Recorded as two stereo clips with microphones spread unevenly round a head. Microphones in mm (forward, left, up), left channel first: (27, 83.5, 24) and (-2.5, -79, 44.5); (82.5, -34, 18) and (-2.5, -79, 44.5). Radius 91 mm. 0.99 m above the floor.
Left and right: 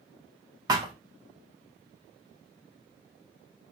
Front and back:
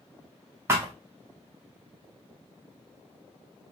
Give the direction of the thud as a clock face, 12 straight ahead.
5 o'clock.